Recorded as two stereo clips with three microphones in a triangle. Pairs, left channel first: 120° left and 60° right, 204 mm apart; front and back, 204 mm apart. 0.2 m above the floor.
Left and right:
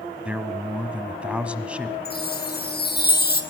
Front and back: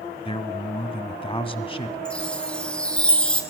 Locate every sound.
0.2 s a man speaking: 20° left, 1.1 m
2.0 s a chime: 85° left, 2 m